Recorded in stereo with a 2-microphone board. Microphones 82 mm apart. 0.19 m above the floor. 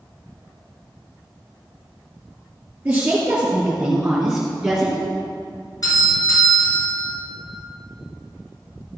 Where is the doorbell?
50° left (ahead or behind), 4 m.